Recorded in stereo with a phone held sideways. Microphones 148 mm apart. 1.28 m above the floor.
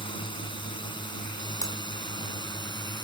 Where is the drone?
35° left (ahead or behind); by 3.0 s 30° left (ahead or behind).